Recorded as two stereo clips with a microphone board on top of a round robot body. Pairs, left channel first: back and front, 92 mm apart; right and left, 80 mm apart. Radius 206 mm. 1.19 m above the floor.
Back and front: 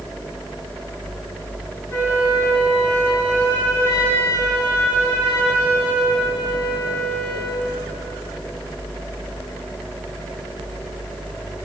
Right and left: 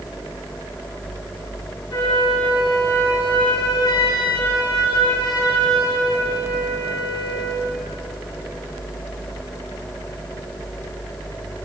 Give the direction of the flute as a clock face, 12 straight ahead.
4 o'clock.